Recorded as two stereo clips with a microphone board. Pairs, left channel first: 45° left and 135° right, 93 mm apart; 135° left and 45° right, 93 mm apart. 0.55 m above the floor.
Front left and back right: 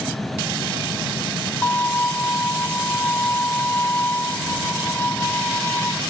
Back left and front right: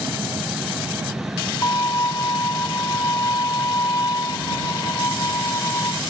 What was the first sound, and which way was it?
A violin, 105° left.